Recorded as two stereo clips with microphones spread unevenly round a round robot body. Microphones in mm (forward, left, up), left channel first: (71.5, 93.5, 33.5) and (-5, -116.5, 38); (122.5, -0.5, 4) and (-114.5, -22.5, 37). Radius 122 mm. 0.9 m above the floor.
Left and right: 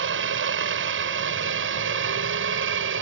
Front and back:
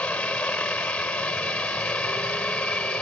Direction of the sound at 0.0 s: 80° right.